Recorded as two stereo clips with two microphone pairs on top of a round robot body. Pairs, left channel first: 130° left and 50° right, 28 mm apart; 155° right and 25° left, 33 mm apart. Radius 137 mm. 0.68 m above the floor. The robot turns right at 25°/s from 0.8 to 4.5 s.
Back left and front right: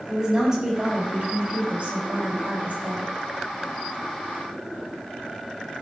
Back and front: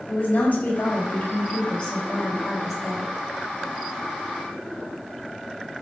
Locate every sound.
0.1 s a woman speaking: 125° right, 5.5 m; by 3.1 s 65° right, 5.5 m